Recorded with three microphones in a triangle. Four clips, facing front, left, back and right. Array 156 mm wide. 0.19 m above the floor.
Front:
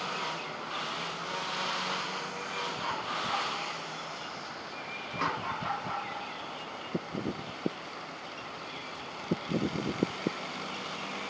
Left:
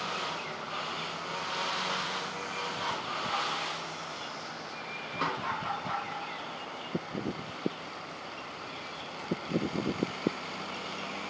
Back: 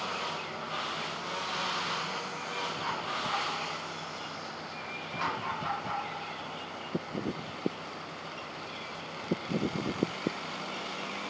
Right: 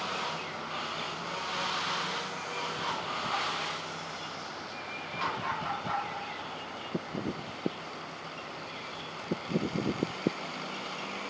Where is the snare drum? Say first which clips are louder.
Left 1 dB, front 1 dB; 55° left, 4 m.